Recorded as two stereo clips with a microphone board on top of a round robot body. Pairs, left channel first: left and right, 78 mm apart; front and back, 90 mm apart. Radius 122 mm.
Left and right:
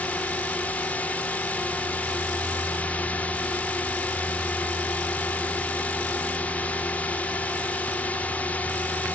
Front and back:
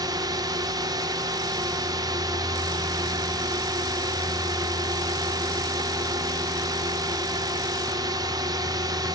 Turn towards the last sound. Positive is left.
turn(degrees=155)